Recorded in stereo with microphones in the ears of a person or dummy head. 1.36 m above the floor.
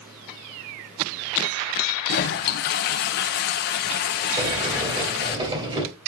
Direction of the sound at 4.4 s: 30° right (ahead or behind).